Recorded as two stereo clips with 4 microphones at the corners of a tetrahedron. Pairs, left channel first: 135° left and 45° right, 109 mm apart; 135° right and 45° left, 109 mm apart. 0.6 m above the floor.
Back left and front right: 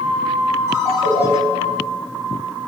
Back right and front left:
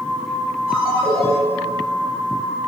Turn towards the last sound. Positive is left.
turn(degrees=20)